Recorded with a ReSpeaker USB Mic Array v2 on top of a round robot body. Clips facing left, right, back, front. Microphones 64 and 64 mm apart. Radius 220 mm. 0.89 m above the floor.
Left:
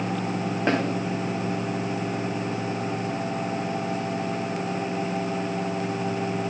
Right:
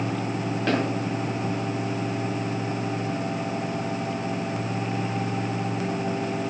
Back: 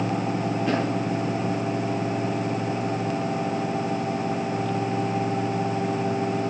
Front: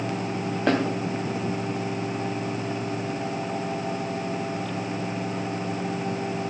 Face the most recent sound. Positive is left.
turn(degrees=25)